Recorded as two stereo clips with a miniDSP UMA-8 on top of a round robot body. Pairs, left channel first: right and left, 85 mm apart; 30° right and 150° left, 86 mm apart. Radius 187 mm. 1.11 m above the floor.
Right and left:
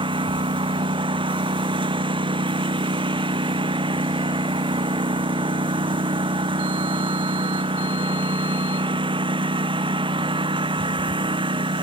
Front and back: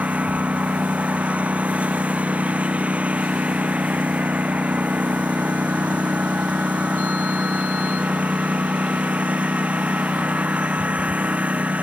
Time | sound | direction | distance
0.0 | a lawn mower | 75° left | ?